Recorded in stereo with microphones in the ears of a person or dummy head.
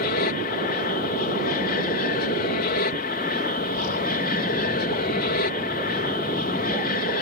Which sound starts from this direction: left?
An aircraft, at 0.0 s.